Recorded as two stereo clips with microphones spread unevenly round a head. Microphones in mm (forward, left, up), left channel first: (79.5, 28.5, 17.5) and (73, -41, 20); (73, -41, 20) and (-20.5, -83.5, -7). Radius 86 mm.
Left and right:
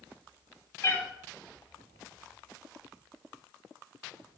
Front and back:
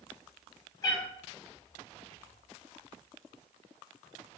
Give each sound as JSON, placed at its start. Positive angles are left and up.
{"t": 0.8, "sound": "a cat meowing", "azimuth_deg": 55, "distance_m": 0.9}